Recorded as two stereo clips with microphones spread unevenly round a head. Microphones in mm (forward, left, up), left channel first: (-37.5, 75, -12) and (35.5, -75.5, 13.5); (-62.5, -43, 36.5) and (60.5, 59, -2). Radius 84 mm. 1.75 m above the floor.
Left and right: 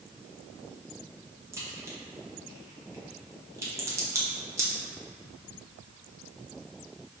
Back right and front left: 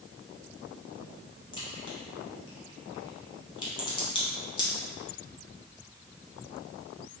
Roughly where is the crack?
Behind right.